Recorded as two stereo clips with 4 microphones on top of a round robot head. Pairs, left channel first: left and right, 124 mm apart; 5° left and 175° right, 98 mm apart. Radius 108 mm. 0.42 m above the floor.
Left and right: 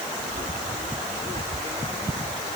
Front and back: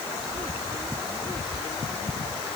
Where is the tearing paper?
I don't hear tearing paper.